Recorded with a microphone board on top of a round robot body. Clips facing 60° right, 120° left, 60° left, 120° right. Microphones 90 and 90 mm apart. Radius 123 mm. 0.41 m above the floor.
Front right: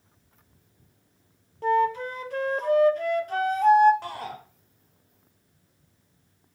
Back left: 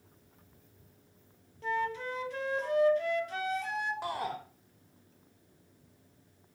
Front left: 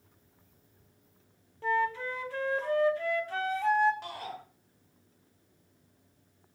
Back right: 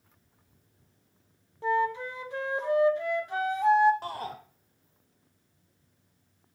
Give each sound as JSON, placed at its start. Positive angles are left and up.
{"t": 1.6, "sound": "a flute", "azimuth_deg": -55, "distance_m": 1.6}
{"t": 4.0, "sound": "a shout", "azimuth_deg": -165, "distance_m": 1.5}